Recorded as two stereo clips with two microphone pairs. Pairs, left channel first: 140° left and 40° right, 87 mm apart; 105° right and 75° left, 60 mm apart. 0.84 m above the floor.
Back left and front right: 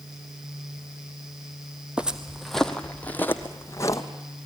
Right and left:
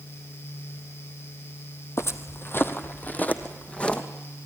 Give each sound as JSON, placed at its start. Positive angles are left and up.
{"t": 2.0, "sound": "footsteps", "azimuth_deg": -115, "distance_m": 1.2}